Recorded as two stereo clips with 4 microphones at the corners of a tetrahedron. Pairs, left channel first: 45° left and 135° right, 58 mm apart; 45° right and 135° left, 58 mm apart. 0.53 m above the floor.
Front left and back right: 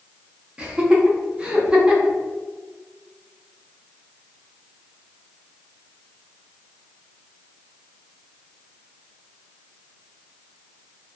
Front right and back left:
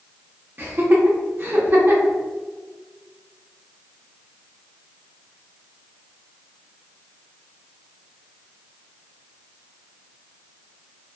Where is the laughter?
160° left, 1.0 m.